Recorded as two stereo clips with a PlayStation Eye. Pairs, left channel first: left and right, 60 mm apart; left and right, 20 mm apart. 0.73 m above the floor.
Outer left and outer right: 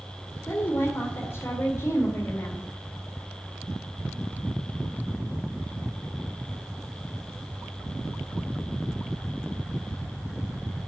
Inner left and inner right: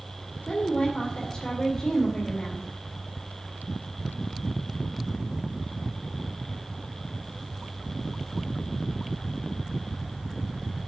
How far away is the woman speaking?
About 2.5 m.